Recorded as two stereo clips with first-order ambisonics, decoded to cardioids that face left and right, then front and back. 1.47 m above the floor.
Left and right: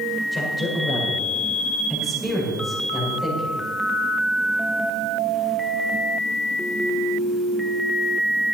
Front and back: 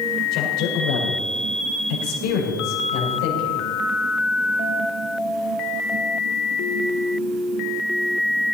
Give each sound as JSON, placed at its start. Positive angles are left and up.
{"t": 0.3, "sound": "a man speaking", "azimuth_deg": 15, "distance_m": 5.5}